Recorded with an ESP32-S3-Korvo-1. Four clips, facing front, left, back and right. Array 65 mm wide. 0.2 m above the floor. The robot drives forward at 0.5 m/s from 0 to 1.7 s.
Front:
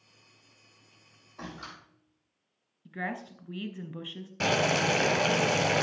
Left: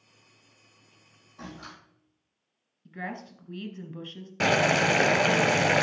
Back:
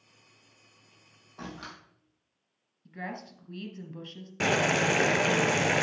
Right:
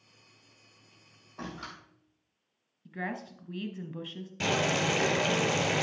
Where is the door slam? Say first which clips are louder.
Right 2 dB, even; 125° right, 4.5 m.